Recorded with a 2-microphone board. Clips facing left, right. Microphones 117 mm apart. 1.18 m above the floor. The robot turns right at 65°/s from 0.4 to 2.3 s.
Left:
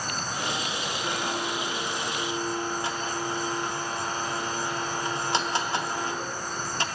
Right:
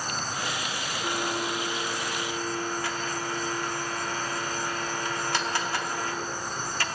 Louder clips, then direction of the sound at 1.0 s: Right 2 dB; 10° right (ahead or behind).